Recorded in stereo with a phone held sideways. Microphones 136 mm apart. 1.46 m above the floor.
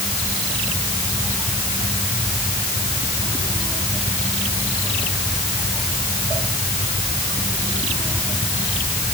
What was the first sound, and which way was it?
Only background noise.